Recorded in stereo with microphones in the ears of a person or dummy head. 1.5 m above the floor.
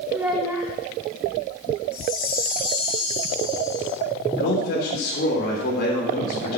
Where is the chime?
25° left (ahead or behind), 3 m.